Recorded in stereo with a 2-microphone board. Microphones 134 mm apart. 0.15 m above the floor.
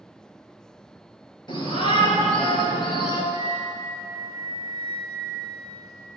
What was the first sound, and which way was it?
A shout, 35° left (ahead or behind).